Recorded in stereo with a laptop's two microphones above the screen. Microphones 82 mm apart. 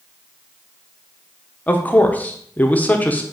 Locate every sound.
1.7 s a man speaking: 20° left (ahead or behind), 0.6 m